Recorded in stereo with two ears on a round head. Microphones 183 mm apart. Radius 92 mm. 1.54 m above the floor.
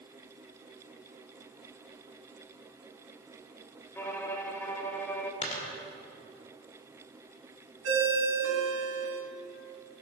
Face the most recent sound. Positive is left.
turn(degrees=-75)  # may be behind; listen again after turning